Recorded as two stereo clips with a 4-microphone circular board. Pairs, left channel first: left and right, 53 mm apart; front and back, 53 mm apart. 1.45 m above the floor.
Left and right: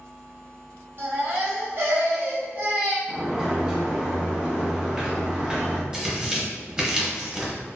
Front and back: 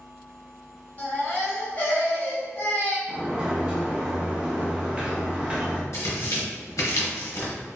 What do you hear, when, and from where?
1.0 s a baby crying: 55° right, 0.9 m
3.1 s a sliding door: 140° right, 0.6 m
5.9 s tearing paper: 20° right, 0.9 m